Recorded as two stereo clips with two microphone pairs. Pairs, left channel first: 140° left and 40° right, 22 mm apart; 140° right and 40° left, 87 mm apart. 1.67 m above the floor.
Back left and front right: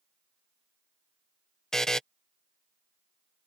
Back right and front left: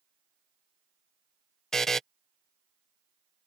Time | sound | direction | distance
1.7 | a buzzer | 145° left | ?